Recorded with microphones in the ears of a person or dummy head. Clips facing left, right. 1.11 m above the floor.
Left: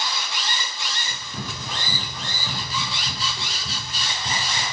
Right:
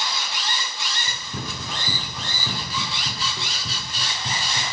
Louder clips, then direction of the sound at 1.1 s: Right 1 dB; 25° right (ahead or behind).